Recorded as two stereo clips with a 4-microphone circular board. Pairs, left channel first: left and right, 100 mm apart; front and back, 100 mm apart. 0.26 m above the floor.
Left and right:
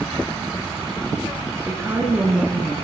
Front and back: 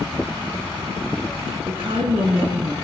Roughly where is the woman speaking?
Behind right.